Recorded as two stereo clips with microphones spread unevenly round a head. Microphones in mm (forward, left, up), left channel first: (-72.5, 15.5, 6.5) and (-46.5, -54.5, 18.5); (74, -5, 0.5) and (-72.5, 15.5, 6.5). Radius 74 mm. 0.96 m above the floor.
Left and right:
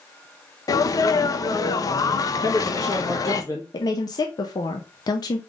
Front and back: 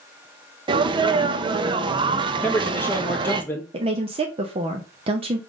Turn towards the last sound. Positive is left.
turn(degrees=120)